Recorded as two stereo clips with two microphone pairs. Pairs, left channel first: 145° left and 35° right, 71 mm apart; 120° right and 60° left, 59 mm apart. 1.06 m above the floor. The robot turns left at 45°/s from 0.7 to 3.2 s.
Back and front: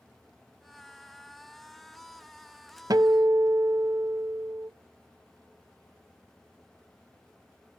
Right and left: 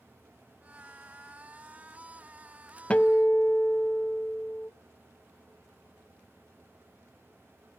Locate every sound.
2.9 s a guitar: 50° right, 0.5 m; by 4.7 s 65° right, 0.5 m